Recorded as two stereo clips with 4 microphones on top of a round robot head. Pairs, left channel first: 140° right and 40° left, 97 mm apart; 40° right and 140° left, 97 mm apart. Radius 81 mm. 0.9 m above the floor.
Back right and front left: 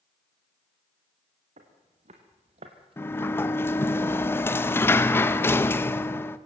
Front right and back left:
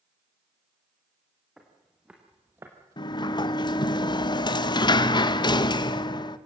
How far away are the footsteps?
About 3.5 m.